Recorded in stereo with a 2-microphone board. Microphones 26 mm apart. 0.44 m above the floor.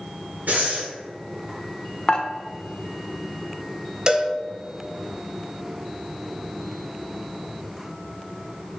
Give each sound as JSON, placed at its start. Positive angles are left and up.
{"t": 0.5, "sound": "breathing", "side_deg": -90, "distance_m": 1.8}
{"t": 2.1, "sound": "dishes clattering", "side_deg": 30, "distance_m": 0.5}
{"t": 4.1, "sound": "a cowbell", "side_deg": -25, "distance_m": 0.5}